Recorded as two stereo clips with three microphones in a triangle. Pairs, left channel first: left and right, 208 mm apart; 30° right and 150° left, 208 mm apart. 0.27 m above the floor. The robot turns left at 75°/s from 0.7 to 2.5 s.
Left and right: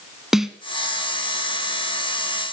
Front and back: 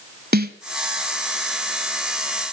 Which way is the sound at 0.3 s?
175° right.